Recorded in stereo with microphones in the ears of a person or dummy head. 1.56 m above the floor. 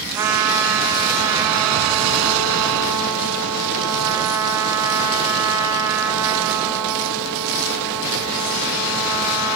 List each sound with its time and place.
0.1 s a trumpet: 20° right (ahead or behind), 0.7 m